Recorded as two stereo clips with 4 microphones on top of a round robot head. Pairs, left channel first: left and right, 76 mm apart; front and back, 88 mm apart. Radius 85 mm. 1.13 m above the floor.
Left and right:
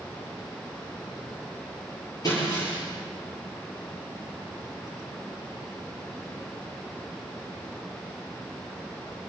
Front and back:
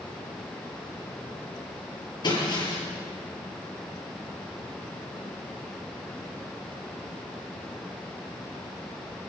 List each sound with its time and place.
2.2 s breaking glass: 40° left, 9 m